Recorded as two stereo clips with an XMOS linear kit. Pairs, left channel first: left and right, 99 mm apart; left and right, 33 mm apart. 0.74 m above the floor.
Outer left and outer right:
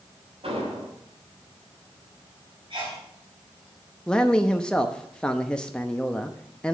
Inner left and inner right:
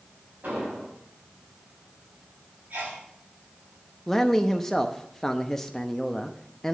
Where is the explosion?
70° right (ahead or behind), 6.5 m.